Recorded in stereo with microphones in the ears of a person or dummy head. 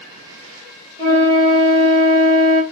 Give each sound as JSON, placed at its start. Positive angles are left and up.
{"t": 1.0, "sound": "a flute", "side_deg": -25, "distance_m": 1.2}